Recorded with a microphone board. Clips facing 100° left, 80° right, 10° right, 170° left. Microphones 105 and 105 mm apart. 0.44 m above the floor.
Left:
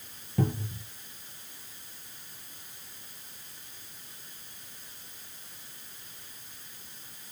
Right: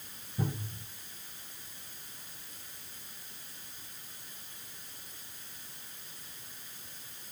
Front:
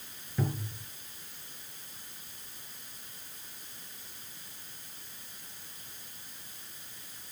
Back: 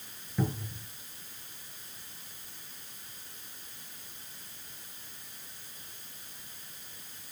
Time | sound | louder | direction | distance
0.4 | a cupboard door | left 6 dB, back 1 dB | 85° left | 4 m